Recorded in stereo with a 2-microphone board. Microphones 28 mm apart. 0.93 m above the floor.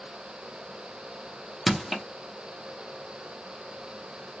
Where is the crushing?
5° right (ahead or behind), 0.7 m.